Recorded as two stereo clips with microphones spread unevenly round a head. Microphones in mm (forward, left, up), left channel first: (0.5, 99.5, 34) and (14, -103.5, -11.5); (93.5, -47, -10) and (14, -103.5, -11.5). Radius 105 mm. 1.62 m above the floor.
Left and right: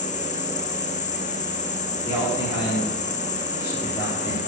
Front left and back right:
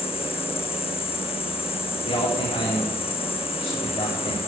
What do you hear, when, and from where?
0.0 s an insect: 35° left, 1.1 m
2.0 s a man speaking: 25° left, 4.5 m